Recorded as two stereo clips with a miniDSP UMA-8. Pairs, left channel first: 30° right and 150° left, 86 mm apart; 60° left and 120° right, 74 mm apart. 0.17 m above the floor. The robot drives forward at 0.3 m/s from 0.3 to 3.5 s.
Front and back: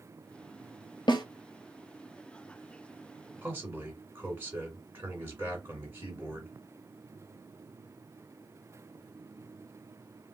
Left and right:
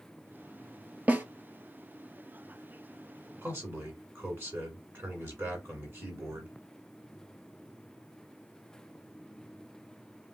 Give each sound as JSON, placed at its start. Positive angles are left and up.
{"t": 1.1, "sound": "a snare drum", "azimuth_deg": -55, "distance_m": 0.6}
{"t": 3.4, "sound": "a man speaking", "azimuth_deg": -155, "distance_m": 2.0}